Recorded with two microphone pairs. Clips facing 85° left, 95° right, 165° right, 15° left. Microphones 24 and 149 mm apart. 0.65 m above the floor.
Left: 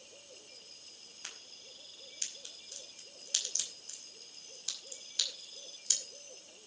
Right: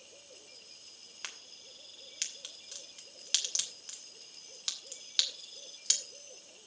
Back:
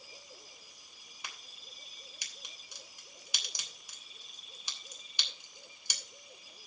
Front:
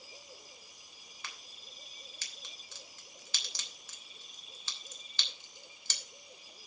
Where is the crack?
90° right, 3 m.